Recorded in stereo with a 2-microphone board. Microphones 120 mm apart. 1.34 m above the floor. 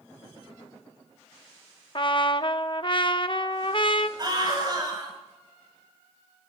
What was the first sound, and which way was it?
A trumpet, 45° left (ahead or behind).